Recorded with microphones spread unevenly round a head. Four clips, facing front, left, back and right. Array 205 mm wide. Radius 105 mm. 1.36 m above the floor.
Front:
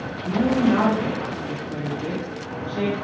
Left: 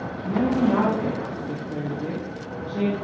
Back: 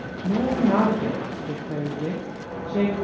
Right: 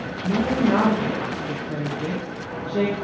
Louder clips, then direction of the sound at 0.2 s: Even, front 2 dB; 135° right.